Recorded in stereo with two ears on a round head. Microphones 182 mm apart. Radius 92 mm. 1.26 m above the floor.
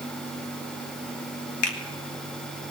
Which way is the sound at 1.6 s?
85° left.